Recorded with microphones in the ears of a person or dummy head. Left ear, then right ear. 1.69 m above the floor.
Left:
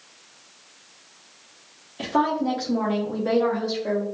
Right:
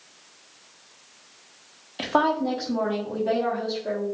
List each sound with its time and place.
2.0 s a woman speaking: 30° right (ahead or behind), 0.6 m; by 4.0 s 55° left (ahead or behind), 0.9 m